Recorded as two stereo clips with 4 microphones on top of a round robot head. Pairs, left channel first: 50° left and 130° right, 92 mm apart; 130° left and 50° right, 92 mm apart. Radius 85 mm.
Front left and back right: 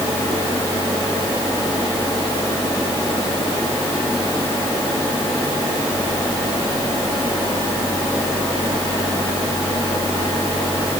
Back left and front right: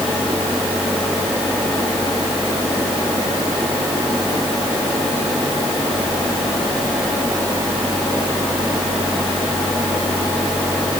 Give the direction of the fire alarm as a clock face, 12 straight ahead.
I don't hear a fire alarm.